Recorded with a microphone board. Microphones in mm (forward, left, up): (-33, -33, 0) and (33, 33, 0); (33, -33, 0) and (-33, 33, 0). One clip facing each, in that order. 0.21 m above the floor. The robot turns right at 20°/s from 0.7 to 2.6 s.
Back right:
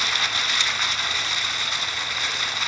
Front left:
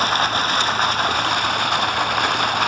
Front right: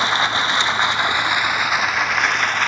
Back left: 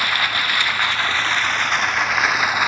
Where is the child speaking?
I don't hear a child speaking.